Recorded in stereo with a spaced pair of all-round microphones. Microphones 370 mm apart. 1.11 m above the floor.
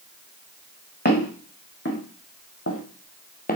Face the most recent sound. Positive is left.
turn(degrees=20)  # may be behind; listen again after turning